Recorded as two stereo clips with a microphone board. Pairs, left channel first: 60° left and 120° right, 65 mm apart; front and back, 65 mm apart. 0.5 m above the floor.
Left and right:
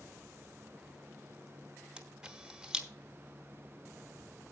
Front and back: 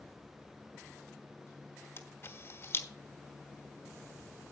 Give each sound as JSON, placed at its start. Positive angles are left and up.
{"t": 2.0, "sound": "a camera shutter", "azimuth_deg": -45, "distance_m": 1.1}